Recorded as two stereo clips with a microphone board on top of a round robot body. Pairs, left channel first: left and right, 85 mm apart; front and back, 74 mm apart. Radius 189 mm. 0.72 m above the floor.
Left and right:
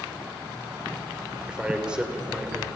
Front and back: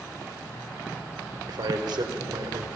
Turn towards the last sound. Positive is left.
turn(degrees=-170)